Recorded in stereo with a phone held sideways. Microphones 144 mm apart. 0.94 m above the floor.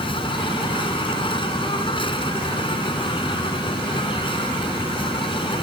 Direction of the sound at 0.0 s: 35° left (ahead or behind).